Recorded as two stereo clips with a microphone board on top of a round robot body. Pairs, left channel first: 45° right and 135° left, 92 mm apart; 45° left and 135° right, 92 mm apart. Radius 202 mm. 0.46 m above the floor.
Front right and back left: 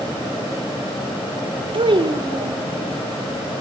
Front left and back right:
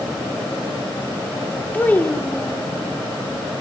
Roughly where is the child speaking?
Behind left.